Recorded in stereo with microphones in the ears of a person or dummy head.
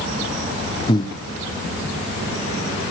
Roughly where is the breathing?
Left.